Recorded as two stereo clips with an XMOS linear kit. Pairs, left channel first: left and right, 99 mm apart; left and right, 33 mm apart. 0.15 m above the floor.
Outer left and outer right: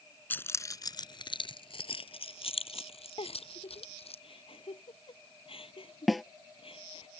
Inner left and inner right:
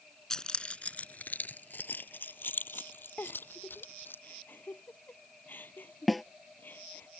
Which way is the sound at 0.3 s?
20° left (ahead or behind).